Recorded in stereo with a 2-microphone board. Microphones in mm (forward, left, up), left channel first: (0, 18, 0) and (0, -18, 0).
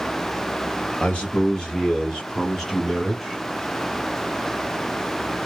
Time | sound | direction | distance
1.0 | a man speaking | 30° left (ahead or behind) | 2.0 m